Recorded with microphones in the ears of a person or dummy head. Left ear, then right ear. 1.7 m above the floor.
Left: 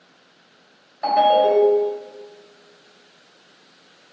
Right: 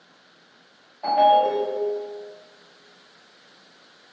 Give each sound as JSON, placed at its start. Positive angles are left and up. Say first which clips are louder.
{"t": 1.0, "sound": "a ringtone", "louder": "left 2 dB", "side_deg": 70, "distance_m": 2.0}